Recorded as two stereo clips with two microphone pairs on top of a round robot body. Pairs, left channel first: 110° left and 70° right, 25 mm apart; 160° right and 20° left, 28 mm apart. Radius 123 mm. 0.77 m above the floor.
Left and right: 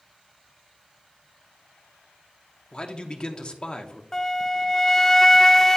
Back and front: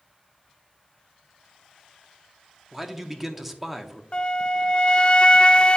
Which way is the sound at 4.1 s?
165° right.